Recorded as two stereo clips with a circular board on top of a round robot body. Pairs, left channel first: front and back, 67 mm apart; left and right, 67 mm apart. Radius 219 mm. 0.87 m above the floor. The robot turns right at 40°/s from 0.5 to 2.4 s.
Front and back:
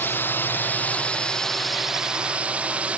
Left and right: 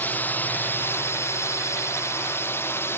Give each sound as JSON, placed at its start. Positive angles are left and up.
{"t": 0.0, "sound": "a drone", "azimuth_deg": 40}